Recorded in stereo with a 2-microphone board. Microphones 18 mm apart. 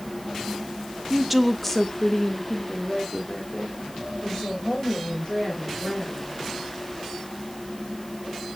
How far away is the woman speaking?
About 0.7 m.